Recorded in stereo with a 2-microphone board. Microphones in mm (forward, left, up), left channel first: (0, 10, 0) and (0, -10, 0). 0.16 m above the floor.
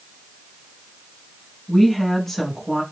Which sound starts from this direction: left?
A woman speaking, at 1.7 s.